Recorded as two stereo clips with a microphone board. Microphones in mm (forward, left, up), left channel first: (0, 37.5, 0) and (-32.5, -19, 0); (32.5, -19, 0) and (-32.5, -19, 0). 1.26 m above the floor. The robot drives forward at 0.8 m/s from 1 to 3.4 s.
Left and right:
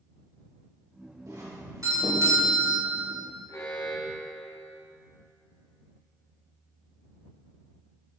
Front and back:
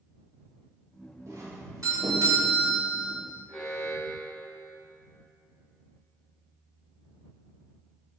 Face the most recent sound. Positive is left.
turn(degrees=90)